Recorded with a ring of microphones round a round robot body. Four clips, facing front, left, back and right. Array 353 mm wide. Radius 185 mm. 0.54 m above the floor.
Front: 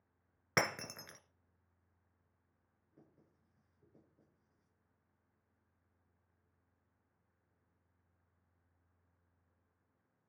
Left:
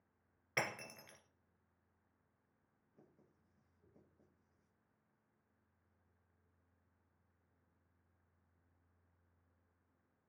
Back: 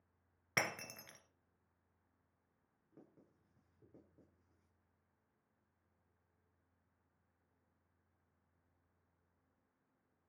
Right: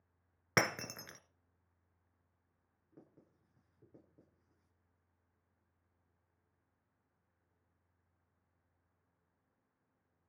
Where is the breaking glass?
70° right, 1.3 m.